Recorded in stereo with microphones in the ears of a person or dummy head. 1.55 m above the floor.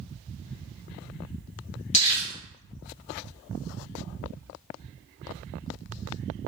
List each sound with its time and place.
1.9 s crumpling: 30° left (ahead or behind), 1.1 m